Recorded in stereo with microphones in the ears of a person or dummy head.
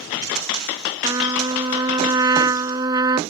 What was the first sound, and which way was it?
A trumpet, 20° right (ahead or behind).